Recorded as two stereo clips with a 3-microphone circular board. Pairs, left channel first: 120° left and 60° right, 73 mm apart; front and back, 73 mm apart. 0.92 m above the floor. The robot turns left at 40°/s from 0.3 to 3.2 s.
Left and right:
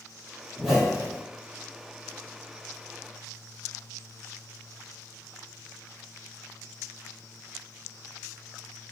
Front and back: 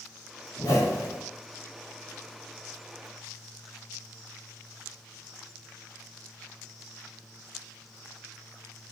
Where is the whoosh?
25° left, 1.0 m; by 1.2 s straight ahead, 1.0 m.